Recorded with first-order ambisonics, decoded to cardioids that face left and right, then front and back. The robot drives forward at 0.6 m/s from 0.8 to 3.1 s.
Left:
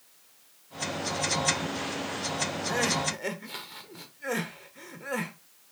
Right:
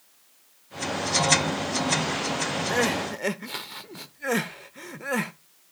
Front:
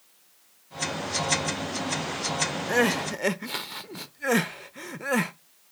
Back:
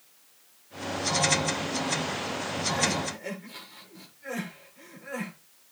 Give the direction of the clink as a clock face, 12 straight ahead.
No clink in this recording.